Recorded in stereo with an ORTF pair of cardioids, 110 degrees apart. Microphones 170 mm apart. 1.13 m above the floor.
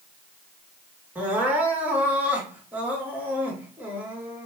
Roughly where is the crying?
Ahead.